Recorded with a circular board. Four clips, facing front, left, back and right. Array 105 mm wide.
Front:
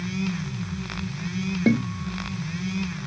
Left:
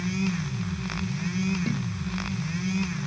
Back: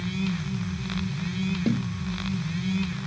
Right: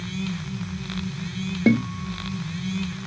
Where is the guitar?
60° right.